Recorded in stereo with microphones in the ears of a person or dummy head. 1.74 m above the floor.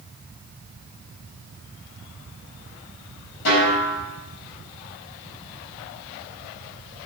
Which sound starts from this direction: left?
A snare drum, at 3.5 s.